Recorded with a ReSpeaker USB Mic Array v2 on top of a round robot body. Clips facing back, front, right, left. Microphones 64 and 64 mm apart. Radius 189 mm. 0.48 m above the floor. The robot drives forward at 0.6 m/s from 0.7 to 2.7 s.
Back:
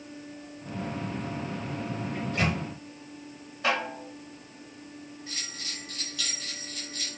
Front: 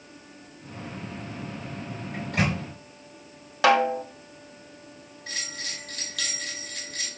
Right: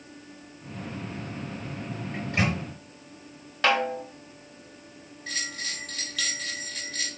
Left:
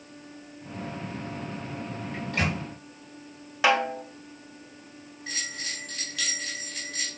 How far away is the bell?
About 3.5 m.